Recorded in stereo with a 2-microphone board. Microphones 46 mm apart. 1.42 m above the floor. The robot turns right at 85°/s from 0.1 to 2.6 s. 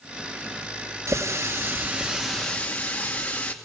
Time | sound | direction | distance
1.1 | a running tap | 105° right | 2.5 m